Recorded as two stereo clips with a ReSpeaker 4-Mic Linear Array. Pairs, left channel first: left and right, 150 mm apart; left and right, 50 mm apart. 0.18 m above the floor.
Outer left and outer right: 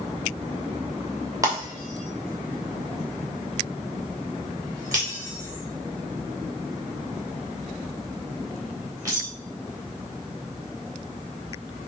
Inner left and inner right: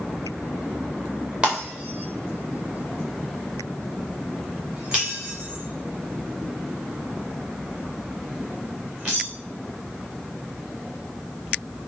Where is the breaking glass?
25° right (ahead or behind), 5 m.